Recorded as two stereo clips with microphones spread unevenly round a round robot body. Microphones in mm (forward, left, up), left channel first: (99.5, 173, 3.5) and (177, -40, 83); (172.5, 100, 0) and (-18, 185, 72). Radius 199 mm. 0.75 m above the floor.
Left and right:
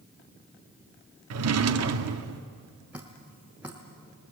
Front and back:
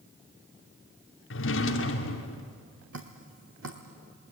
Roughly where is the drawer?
Ahead right.